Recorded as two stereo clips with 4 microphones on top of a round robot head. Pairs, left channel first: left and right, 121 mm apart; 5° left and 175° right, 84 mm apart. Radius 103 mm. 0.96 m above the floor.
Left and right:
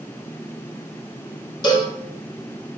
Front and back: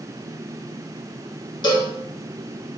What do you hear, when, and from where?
1.6 s a cowbell: 35° left, 1.2 m